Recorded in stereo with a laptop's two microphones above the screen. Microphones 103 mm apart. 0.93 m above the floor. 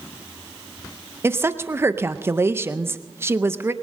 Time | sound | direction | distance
1.2 | a woman speaking | 25° right (ahead or behind) | 0.6 m